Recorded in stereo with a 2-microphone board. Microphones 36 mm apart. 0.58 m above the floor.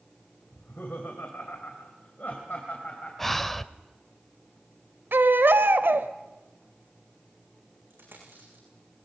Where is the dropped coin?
75° right (ahead or behind), 7.5 m.